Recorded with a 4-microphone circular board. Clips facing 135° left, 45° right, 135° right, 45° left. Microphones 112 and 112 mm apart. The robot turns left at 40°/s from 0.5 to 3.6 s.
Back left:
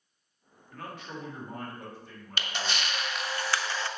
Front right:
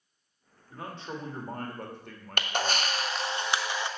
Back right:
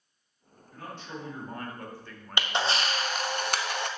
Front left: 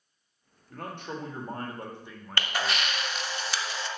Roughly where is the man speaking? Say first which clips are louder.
Front right 2 dB, front left 3 dB; ahead left.